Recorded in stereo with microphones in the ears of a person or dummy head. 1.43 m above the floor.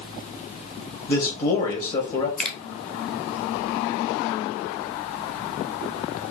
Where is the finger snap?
5° left (ahead or behind), 1.0 m.